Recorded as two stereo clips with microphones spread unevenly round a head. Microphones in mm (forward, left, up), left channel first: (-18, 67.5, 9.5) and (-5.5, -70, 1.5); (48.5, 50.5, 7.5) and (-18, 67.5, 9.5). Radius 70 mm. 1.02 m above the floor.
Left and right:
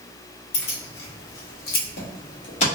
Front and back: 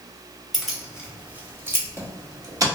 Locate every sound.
0.5 s keys jangling: 75° left, 1.2 m; by 2.7 s 135° left, 1.5 m